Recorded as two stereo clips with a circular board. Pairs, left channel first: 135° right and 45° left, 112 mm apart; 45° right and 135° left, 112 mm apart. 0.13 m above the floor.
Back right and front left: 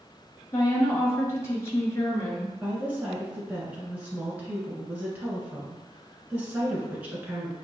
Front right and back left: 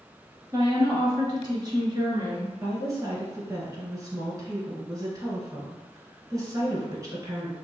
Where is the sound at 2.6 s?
110° left, 1.7 m.